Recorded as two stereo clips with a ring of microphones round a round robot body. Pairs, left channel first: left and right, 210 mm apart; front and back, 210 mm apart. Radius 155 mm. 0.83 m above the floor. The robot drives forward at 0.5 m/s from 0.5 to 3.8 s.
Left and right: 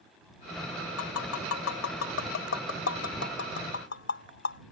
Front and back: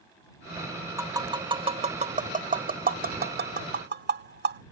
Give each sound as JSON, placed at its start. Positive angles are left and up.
{"t": 1.0, "sound": "tapping", "azimuth_deg": 105}